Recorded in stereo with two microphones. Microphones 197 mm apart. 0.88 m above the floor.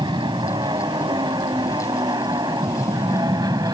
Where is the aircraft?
20° right (ahead or behind).